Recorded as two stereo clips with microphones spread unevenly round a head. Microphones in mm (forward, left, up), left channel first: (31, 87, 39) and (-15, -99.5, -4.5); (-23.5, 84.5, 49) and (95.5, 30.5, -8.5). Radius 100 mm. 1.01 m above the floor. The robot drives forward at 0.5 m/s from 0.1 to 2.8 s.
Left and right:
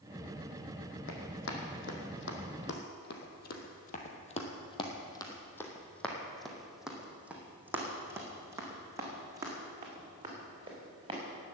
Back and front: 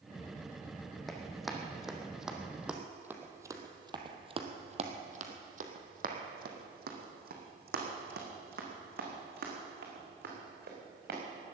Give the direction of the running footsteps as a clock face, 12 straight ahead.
9 o'clock.